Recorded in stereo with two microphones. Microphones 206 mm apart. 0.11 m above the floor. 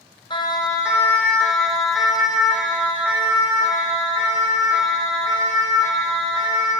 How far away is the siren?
About 3.5 m.